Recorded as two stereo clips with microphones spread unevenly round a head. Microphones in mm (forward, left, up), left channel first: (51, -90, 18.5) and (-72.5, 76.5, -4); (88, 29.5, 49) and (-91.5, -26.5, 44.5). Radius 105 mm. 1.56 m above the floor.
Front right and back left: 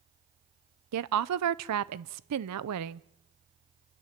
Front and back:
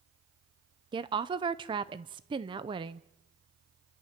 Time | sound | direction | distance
0.9 | a woman speaking | 130° left | 0.6 m